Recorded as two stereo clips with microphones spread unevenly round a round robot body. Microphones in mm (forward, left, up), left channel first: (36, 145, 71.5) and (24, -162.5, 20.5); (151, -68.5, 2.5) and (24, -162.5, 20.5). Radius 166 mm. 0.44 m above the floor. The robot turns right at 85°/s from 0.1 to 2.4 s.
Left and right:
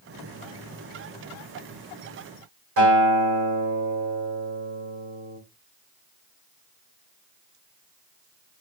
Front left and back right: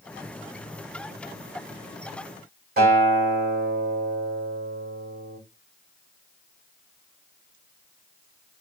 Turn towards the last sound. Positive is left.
turn(degrees=-125)